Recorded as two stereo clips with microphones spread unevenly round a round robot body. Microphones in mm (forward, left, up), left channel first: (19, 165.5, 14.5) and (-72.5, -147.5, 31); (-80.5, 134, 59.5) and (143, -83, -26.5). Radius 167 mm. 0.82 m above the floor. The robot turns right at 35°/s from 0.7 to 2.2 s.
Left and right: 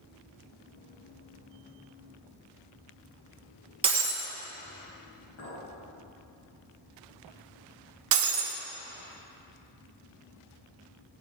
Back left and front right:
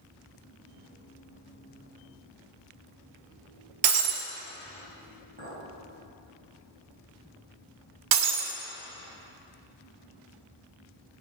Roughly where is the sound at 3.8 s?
Ahead right.